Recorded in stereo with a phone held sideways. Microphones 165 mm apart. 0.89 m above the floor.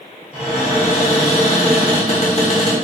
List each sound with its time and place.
0.3 s a cupboard door: 40° left (ahead or behind), 1.0 m